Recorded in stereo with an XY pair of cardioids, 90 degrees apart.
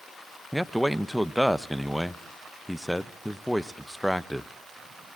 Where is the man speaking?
Straight ahead, 0.6 m.